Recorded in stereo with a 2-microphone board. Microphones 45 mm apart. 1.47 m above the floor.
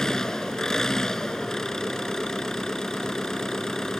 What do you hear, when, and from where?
0.0 s an engine running: 10° left (ahead or behind)